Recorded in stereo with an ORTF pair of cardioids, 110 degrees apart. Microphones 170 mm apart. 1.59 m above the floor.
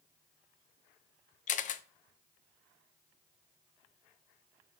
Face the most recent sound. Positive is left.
turn(degrees=50)